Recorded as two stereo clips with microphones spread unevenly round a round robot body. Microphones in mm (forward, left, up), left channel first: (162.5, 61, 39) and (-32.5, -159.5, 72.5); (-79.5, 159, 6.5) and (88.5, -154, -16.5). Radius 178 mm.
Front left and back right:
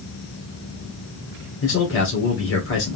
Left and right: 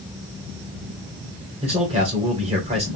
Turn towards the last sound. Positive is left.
turn(degrees=10)